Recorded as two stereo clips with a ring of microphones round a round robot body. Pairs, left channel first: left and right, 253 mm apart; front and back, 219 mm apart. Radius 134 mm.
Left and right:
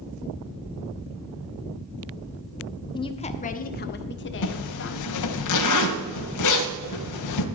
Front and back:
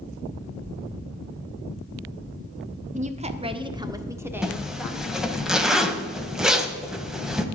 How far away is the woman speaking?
About 1.2 m.